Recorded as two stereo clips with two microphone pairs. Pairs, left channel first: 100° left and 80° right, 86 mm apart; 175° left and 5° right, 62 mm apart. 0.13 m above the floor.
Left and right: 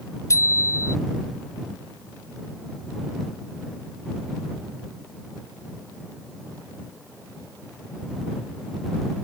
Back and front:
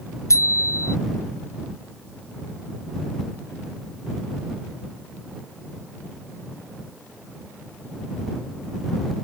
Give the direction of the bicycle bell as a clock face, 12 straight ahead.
7 o'clock.